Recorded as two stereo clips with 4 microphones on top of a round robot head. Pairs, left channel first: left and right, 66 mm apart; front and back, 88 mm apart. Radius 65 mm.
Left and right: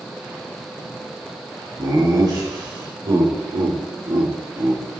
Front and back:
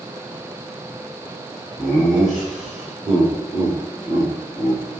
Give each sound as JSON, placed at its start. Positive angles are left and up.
{"t": 1.8, "sound": "laughter", "azimuth_deg": -85, "distance_m": 4.5}